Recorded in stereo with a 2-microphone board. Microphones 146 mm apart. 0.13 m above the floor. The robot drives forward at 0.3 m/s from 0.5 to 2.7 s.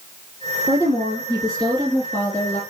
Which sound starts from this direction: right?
A woman speaking, at 0.7 s.